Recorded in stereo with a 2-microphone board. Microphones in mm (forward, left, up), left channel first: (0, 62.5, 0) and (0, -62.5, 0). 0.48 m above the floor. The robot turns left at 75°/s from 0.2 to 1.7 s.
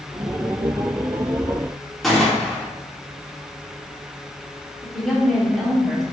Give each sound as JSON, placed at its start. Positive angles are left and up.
{"t": 2.0, "sound": "a gunshot", "side_deg": 0, "distance_m": 1.1}
{"t": 4.8, "sound": "a woman speaking", "side_deg": 0, "distance_m": 1.1}